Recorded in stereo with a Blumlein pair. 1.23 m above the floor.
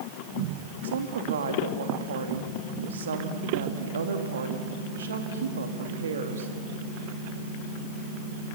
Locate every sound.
0.8 s a woman speaking: 65° right, 2.5 m